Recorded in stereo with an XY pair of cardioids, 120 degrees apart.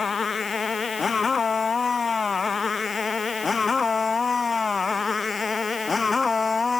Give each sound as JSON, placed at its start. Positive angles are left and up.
{"t": 0.0, "sound": "a motorcycle", "azimuth_deg": 30}